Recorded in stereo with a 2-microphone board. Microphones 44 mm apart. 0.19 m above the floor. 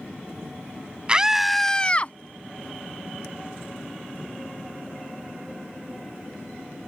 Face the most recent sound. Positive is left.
turn(degrees=35)  # may be behind; listen again after turning